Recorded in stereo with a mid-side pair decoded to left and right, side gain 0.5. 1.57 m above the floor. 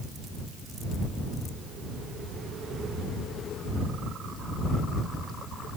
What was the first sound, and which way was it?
Only background noise.